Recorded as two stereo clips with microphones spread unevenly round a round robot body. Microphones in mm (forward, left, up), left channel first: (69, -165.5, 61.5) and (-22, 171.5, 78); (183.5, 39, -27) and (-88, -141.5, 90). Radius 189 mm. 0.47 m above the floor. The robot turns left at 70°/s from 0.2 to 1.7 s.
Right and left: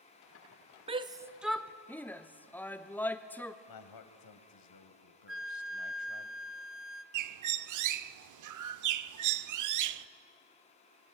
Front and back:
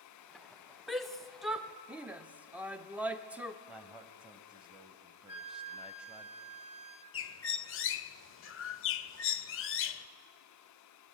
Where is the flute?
65° left, 1.5 m.